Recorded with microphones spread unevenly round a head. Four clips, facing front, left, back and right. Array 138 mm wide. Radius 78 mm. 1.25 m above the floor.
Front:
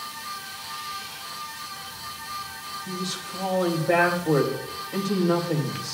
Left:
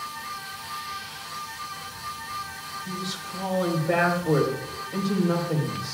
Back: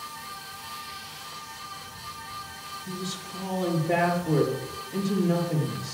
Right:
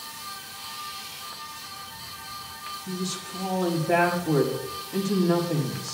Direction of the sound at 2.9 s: 30° left.